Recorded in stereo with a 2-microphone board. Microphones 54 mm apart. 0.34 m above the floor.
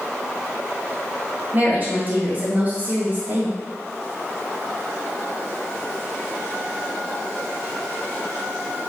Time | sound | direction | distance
1.5 | a woman speaking | 40° right (ahead or behind) | 1.5 m